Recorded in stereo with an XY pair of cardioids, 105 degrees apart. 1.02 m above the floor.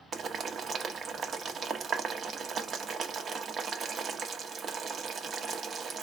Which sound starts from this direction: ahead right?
Boiling, at 0.1 s.